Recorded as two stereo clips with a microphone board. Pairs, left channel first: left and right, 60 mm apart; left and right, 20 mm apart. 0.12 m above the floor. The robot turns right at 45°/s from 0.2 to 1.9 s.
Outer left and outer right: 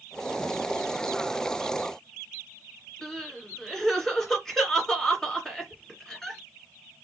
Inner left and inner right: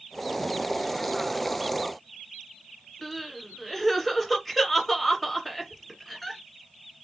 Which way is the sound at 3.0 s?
10° left (ahead or behind).